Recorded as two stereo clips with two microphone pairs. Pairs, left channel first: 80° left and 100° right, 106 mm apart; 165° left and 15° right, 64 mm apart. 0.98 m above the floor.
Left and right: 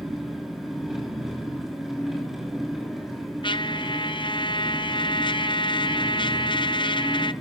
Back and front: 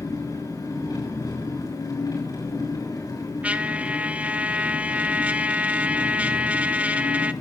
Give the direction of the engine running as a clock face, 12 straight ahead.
6 o'clock.